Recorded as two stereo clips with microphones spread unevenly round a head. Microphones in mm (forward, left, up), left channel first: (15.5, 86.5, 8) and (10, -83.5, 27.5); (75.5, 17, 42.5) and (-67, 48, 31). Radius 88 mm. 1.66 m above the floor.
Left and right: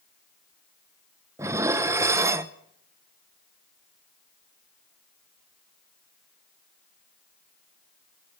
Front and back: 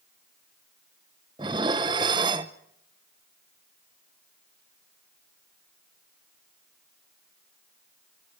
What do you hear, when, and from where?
1.4 s dishes clattering: 140° right, 0.7 m